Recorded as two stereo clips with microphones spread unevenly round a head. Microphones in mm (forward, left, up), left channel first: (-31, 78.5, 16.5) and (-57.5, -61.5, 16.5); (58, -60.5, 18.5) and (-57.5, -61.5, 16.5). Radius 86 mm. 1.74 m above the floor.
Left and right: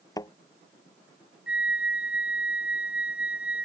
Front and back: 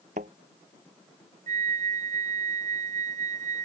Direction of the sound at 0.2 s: 140° left.